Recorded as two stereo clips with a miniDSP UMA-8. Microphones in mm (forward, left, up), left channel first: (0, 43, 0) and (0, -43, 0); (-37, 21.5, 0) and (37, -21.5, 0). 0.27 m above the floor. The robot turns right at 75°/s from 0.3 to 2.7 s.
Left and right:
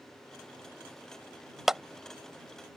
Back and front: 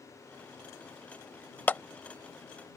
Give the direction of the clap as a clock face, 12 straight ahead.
6 o'clock.